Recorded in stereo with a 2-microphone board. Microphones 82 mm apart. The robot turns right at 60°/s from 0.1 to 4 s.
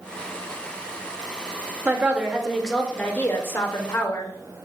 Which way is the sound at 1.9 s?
45° right.